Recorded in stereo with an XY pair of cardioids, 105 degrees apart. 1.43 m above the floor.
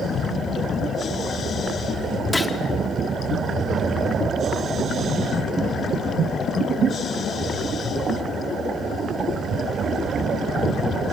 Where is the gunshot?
15° left, 2 m.